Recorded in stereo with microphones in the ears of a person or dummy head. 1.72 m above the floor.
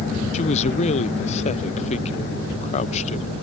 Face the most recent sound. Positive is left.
turn(degrees=35)  # may be behind; listen again after turning